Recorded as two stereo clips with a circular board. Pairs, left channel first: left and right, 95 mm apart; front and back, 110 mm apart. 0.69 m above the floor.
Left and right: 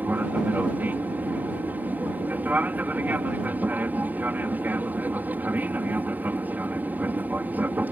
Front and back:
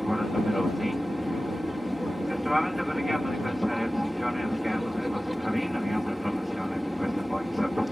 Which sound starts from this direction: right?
An aircraft, at 0.0 s.